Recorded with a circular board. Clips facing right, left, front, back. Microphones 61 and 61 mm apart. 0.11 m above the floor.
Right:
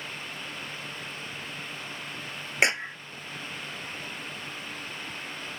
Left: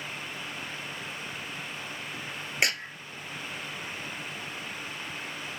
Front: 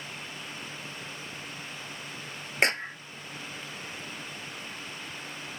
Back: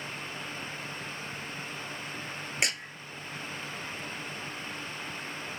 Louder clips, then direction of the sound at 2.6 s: Right 4 dB, front 7 dB; 35° right.